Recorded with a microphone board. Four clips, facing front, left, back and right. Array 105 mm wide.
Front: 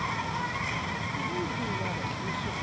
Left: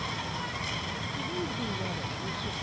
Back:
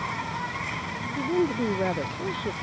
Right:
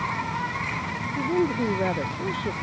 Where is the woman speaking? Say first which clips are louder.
Right 13 dB, back 12 dB; 125° right.